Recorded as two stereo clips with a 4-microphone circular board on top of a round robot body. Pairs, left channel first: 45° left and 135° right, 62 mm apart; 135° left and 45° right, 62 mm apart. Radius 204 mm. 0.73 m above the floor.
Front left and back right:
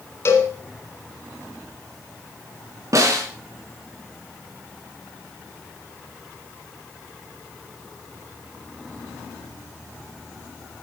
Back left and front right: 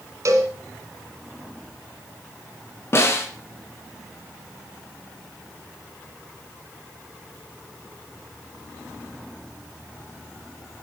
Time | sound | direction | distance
0.2 | a cowbell | 5° right | 2 m
2.9 | a snare drum | 175° right | 3.5 m